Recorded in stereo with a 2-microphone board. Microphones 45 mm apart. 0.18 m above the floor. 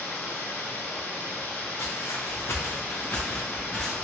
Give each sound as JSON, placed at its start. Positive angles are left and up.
{"t": 0.0, "sound": "running water", "side_deg": 60, "distance_m": 0.9}
{"t": 1.8, "sound": "footsteps", "side_deg": 80, "distance_m": 0.8}